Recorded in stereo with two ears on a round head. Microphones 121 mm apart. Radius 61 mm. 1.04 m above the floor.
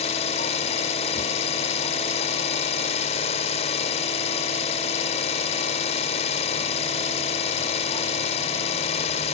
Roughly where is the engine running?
Left.